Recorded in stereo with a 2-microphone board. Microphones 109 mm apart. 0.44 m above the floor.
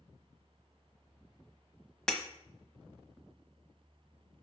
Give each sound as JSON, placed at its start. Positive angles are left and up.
{"t": 2.1, "sound": "breaking glass", "side_deg": 5, "distance_m": 1.2}